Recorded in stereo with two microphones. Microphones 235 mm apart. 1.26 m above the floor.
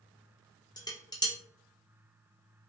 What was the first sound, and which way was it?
Dishes clattering, 15° left (ahead or behind).